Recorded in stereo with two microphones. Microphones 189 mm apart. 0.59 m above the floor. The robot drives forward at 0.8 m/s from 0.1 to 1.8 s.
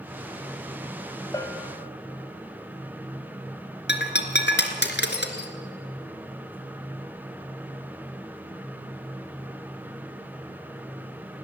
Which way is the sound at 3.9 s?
70° left (ahead or behind).